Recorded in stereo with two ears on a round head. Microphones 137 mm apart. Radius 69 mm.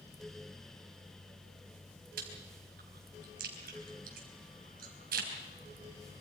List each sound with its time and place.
2.2 s chewing: 65° right (ahead or behind), 4.5 m